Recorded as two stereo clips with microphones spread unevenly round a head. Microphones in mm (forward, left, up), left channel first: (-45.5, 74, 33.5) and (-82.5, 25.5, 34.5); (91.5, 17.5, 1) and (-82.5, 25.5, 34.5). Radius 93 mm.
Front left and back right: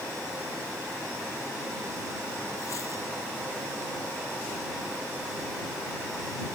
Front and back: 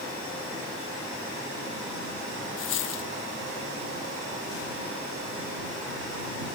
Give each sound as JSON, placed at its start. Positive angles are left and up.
{"t": 2.6, "sound": "a dropped coin", "azimuth_deg": -10}